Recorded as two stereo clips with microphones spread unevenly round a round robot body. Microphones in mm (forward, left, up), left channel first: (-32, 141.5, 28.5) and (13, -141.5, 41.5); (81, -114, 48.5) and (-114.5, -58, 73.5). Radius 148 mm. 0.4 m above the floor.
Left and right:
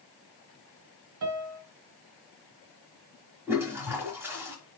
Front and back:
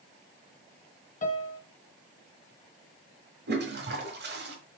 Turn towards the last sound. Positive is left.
turn(degrees=-165)